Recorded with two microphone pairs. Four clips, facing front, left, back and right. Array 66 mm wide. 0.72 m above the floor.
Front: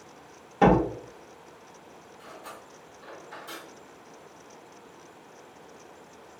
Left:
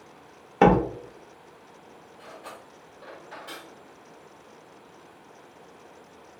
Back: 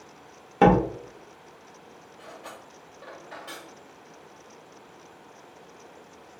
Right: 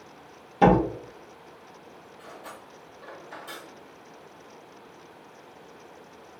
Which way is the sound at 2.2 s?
170° left.